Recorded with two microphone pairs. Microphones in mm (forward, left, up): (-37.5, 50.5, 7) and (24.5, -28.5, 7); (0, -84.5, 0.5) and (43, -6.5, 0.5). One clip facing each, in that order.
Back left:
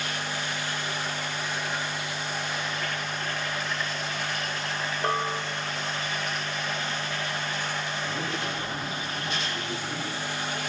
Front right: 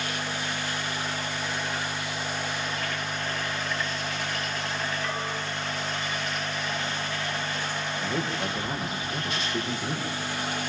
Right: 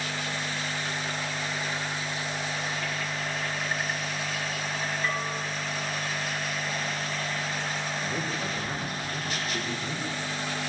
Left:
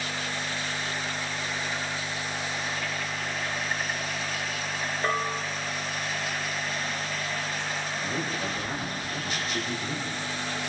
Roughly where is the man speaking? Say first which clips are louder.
Front right 2 dB, even; ahead right.